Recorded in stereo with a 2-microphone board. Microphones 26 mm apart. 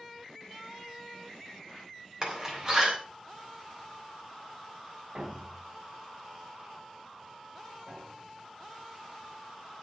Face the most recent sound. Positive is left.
turn(degrees=-75)  # may be behind; listen again after turning